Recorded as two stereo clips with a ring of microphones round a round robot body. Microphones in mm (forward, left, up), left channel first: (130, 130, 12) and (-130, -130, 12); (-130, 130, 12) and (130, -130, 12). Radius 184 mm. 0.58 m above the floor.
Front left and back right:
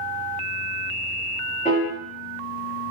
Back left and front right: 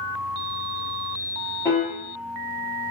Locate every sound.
1.6 s a piano: 65° left, 1.1 m